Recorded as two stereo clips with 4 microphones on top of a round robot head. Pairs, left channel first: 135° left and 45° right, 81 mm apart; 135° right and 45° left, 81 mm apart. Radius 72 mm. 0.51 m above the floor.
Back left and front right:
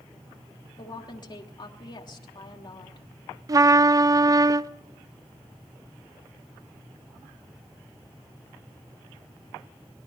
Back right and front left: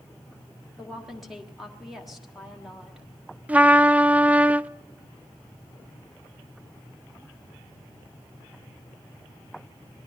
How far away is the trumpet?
About 0.5 m.